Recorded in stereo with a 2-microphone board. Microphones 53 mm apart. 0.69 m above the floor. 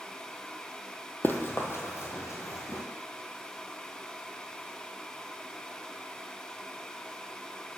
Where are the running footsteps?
40° left (ahead or behind), 0.8 m; by 2.8 s 60° left (ahead or behind), 1.5 m.